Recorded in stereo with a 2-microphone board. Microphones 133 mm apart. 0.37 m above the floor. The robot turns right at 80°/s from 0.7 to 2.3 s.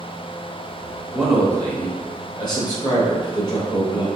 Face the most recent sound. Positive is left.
turn(degrees=75)